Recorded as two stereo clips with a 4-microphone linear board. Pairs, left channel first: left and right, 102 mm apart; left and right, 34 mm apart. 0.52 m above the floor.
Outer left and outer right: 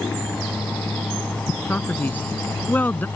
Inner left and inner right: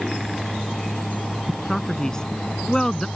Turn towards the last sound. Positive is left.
turn(degrees=15)  # may be behind; listen again after turning